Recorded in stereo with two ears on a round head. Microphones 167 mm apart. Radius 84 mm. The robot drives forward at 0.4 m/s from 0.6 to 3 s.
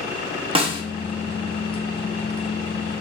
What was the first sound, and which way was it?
A snare drum, 30° right (ahead or behind).